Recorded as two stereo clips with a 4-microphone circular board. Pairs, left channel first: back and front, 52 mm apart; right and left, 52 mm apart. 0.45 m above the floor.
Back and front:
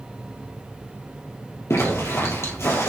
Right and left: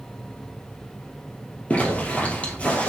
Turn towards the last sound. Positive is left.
turn(degrees=-150)